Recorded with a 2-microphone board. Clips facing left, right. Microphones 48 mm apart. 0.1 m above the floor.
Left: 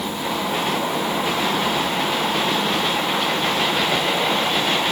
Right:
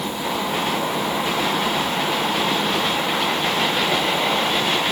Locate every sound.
Only background noise.